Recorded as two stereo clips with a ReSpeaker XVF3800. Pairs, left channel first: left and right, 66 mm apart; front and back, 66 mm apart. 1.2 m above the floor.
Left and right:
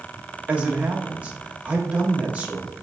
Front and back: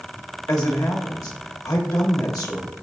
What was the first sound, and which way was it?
A man speaking, 25° right.